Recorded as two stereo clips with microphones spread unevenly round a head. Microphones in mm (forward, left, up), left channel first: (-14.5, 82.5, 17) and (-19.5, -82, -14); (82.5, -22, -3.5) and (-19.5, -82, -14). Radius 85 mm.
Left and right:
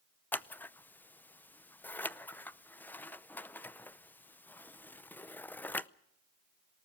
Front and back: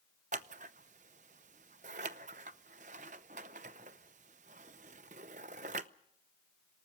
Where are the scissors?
170° left, 0.6 m.